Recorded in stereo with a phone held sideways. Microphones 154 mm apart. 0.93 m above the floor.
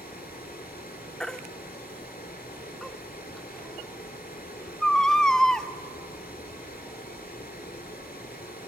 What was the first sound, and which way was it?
Running water, 80° left.